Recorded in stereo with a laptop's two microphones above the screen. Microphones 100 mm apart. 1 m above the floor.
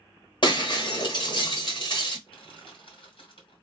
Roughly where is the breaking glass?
Left.